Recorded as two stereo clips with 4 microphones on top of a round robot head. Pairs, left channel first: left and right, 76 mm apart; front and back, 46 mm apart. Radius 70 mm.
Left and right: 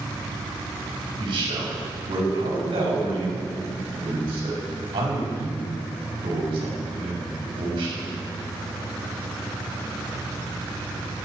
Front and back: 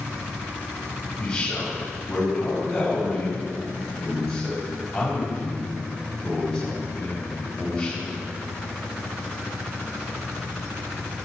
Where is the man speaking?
75° right, 5.5 m.